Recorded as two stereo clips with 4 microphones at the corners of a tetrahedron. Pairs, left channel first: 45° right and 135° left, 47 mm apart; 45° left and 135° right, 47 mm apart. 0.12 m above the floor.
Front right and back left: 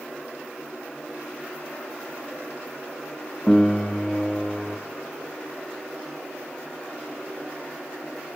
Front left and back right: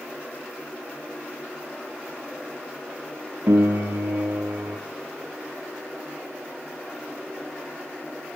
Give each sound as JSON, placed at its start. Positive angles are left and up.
{"t": 3.5, "sound": "a piano", "azimuth_deg": -120, "distance_m": 2.0}